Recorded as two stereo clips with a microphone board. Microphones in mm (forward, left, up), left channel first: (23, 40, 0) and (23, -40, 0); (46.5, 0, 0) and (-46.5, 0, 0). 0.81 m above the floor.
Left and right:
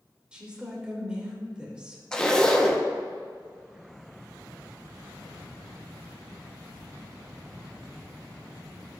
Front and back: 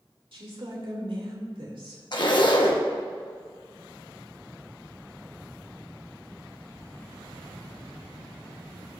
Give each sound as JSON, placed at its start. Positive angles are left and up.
{"t": 0.3, "sound": "a woman speaking", "azimuth_deg": -165, "distance_m": 2.5}
{"t": 2.1, "sound": "a zipper", "azimuth_deg": 10, "distance_m": 0.9}